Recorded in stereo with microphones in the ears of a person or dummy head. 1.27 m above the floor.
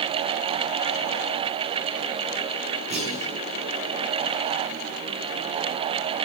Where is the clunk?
35° right (ahead or behind), 9.5 m.